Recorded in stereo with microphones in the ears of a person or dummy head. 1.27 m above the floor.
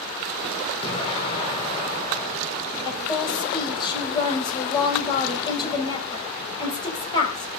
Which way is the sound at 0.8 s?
40° left (ahead or behind).